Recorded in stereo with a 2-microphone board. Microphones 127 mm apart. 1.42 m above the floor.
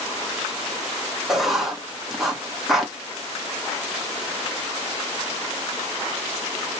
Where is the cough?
No cough in this recording.